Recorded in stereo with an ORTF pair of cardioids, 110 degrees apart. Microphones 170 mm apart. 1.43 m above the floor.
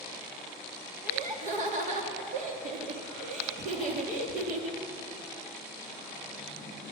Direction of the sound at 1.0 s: 50° right.